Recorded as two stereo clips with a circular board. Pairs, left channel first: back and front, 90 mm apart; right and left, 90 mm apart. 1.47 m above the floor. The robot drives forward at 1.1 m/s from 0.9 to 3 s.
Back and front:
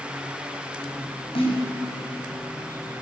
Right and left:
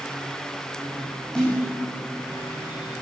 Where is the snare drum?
170° right, 8 m.